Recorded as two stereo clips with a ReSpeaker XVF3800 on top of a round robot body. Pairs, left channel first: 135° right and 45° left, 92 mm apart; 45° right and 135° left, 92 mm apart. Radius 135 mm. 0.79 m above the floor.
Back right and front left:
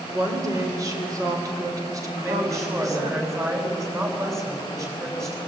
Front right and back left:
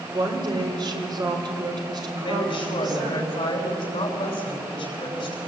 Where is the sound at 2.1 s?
10° right, 6.5 m.